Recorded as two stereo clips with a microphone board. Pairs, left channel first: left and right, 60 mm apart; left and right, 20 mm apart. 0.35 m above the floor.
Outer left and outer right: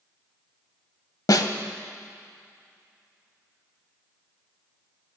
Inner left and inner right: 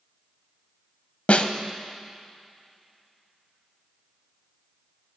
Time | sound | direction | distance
1.3 | a snare drum | 70° left (ahead or behind) | 0.6 m